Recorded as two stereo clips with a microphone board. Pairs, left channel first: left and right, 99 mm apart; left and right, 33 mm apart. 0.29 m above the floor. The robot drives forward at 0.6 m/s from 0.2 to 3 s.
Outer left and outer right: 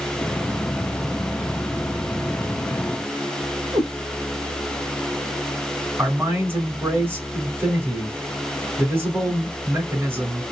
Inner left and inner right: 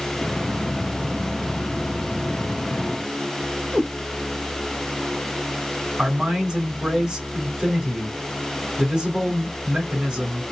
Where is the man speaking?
25° right (ahead or behind), 3 m.